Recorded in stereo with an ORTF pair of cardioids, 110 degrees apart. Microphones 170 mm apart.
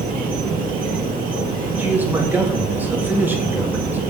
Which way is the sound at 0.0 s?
55° right.